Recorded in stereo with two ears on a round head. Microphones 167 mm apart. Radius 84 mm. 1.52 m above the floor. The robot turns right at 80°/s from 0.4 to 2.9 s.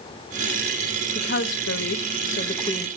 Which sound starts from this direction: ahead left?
A woman speaking, at 1.1 s.